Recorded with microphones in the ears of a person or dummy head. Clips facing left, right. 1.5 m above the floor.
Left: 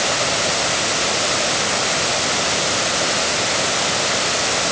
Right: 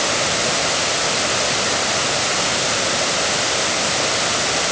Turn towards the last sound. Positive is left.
No sound to turn to.